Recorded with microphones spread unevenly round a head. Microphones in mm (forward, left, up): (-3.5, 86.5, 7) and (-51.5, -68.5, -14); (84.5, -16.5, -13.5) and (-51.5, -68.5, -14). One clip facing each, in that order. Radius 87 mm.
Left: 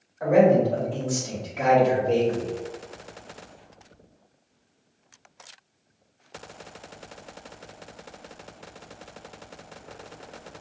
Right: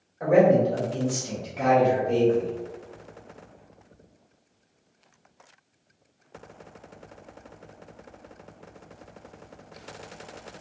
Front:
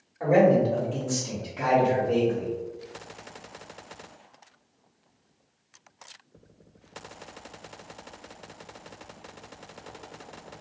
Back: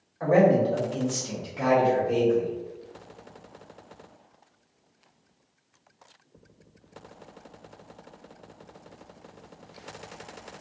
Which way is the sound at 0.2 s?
50° right.